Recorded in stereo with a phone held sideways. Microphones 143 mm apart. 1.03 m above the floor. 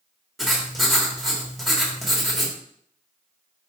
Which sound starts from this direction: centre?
Writing, at 0.4 s.